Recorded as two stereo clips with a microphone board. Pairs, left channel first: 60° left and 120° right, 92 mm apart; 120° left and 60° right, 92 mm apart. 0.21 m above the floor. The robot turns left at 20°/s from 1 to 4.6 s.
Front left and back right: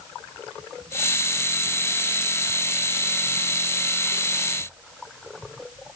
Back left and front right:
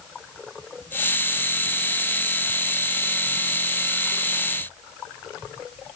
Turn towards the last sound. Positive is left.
No sound to turn to.